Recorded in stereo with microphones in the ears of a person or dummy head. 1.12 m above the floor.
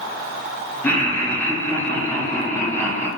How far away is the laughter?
About 0.7 m.